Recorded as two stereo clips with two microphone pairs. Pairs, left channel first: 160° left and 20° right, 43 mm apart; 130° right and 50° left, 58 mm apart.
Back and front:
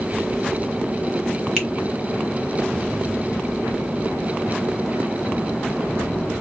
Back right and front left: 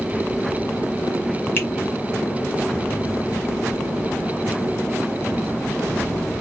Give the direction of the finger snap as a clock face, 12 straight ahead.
4 o'clock.